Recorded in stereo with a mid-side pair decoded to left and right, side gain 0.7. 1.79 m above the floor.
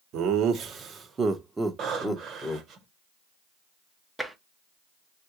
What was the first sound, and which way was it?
Laughter, 55° right.